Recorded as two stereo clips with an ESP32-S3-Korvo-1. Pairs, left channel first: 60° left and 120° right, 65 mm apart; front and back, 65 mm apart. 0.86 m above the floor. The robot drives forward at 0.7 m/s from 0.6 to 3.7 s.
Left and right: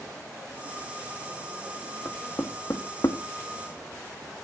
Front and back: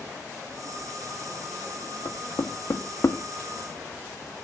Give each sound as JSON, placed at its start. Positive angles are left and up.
{"t": 2.0, "sound": "knocking", "azimuth_deg": 20, "distance_m": 1.5}